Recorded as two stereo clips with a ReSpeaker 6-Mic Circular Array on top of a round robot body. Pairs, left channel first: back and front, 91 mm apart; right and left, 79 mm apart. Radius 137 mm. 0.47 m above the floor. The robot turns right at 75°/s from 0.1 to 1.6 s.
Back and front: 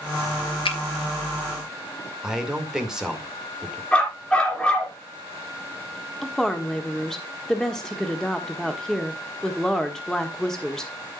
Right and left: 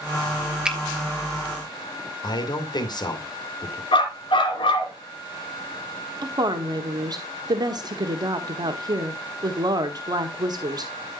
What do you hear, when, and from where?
0.7 s a finger snap: 170° left, 3 m; by 0.8 s 175° left, 3 m
2.2 s a man speaking: 85° right, 2.5 m
3.9 s a dog barking: 100° right, 3 m
6.2 s a woman speaking: 95° left, 1.5 m